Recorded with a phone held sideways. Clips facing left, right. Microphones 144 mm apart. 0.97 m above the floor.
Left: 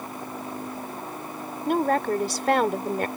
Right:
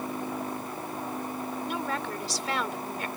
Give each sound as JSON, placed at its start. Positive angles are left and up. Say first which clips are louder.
{"t": 1.7, "sound": "a woman speaking", "louder": "left 14 dB", "side_deg": 55}